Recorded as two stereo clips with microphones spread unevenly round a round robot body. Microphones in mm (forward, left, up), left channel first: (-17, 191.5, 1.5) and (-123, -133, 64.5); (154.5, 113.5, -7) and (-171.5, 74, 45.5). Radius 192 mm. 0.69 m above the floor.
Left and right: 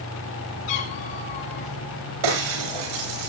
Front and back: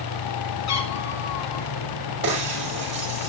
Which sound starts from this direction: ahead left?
A cat meowing, at 0.7 s.